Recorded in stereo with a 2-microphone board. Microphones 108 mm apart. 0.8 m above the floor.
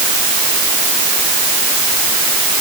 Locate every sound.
Only background noise.